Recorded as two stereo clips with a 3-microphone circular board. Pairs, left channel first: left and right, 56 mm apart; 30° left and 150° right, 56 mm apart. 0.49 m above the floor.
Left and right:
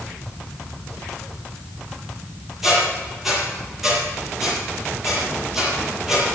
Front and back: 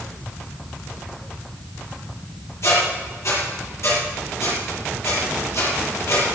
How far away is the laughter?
No laughter in this recording.